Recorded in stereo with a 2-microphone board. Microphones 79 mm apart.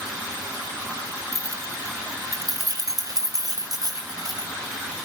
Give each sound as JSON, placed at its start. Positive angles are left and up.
{"t": 1.3, "sound": "keys jangling", "side_deg": -40, "distance_m": 2.5}